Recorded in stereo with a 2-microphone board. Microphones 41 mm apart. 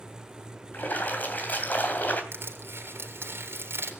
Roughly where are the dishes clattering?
I don't hear dishes clattering.